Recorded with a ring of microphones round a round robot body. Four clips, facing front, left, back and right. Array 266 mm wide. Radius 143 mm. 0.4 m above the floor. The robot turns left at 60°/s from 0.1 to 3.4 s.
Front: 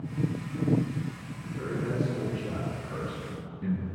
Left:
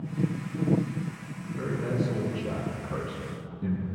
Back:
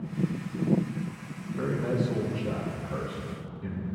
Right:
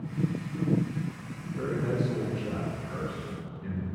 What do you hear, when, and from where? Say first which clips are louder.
1.6 s a man speaking: even, back 3 dB; 175° left, 4 m; by 3.9 s 65° left, 4 m